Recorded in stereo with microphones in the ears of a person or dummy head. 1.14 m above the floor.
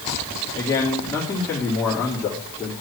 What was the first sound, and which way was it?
A man speaking, 10° left (ahead or behind).